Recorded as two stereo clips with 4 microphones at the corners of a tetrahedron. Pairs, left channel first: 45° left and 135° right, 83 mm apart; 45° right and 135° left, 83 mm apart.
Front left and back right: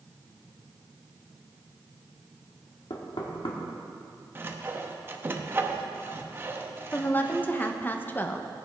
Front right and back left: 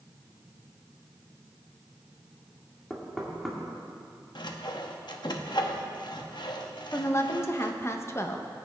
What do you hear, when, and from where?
2.9 s knocking: 45° left, 2 m
4.3 s sawing: 70° right, 0.9 m
6.9 s a woman speaking: 10° right, 0.9 m